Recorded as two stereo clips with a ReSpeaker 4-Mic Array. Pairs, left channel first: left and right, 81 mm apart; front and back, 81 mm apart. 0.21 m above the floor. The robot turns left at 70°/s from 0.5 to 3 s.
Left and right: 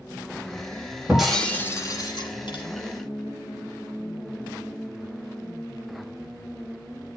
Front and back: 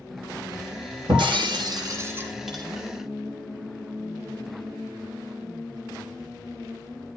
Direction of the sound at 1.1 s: 170° right.